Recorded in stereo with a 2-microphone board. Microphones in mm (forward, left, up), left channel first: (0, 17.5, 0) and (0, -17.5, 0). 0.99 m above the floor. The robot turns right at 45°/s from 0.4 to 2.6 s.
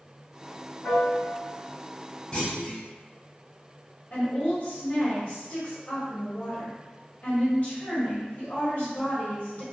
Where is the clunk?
25° left (ahead or behind), 0.9 m; by 2.8 s 35° left (ahead or behind), 0.9 m.